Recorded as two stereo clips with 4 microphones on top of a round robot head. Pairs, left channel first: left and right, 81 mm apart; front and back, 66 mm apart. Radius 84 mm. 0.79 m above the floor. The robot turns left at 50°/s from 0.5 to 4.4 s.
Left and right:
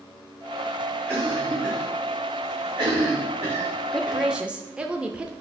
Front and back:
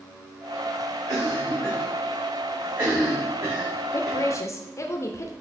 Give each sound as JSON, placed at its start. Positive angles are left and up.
{"t": 1.1, "sound": "a cough", "azimuth_deg": -25, "distance_m": 3.0}
{"t": 3.9, "sound": "a woman speaking", "azimuth_deg": 5, "distance_m": 0.6}